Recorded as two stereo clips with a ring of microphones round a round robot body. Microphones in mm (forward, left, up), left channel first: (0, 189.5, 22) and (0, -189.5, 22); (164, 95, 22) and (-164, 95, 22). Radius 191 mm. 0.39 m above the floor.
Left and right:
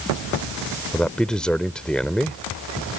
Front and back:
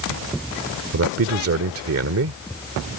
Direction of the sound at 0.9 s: 175° left.